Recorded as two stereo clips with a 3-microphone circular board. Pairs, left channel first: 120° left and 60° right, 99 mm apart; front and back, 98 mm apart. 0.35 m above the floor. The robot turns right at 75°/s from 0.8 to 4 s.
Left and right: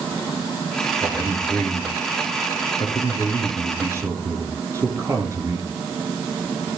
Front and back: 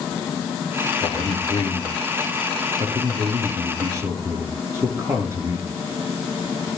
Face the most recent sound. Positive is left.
turn(degrees=-120)